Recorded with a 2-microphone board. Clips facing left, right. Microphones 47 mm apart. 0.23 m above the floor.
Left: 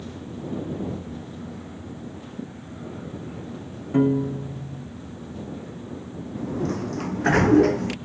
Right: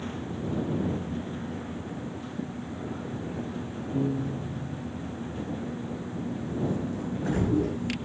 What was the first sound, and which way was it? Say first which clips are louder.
A piano: left 9 dB; 75° left (ahead or behind).